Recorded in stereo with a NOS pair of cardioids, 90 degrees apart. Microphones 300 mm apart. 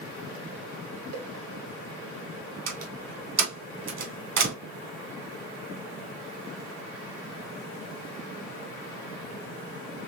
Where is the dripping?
I don't hear dripping.